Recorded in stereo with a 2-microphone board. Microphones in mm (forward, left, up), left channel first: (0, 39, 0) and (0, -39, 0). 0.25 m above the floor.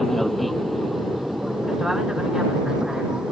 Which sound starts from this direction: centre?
An aircraft, at 0.0 s.